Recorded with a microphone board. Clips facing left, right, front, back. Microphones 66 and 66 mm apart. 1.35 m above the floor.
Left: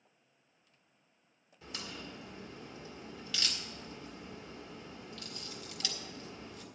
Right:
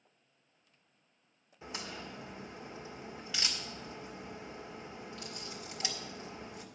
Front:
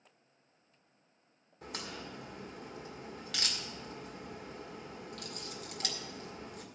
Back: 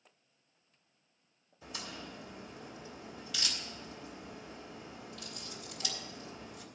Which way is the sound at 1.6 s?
25° right.